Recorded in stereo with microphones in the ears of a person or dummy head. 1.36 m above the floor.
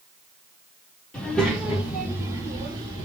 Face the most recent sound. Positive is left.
turn(degrees=-30)  # may be behind; listen again after turning